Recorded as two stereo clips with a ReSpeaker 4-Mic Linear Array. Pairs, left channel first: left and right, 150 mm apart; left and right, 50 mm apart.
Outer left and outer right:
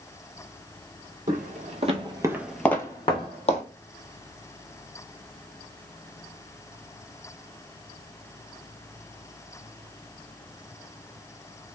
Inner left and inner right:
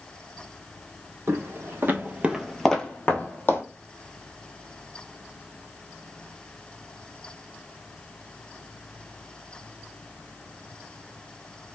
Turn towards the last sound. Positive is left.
turn(degrees=50)  # may be behind; listen again after turning